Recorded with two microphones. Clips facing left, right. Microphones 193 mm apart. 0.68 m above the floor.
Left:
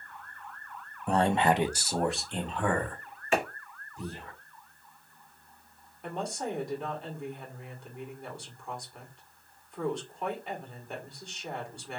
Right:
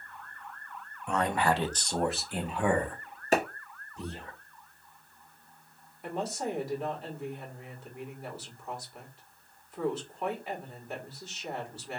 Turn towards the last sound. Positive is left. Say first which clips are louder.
# right 1 dB
turn(degrees=-5)  # may be behind; listen again after turning